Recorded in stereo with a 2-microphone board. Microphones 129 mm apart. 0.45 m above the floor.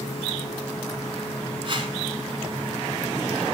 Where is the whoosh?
45° right (ahead or behind), 0.9 m.